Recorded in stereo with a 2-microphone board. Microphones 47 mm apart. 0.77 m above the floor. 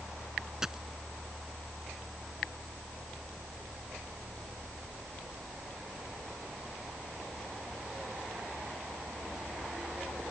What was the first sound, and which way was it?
A dropped coin, 10° right (ahead or behind).